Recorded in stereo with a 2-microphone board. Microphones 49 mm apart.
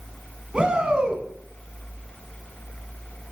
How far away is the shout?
About 1.4 m.